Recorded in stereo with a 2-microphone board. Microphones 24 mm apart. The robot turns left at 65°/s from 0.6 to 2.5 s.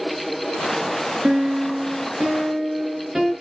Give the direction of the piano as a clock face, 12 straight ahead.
2 o'clock.